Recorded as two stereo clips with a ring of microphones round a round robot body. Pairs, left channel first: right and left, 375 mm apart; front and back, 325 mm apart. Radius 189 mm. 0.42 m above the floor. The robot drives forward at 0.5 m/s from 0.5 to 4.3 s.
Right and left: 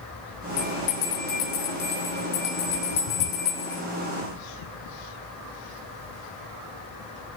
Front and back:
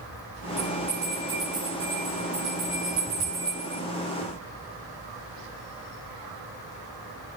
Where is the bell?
95° right, 4 m; by 3.8 s 115° right, 4.5 m.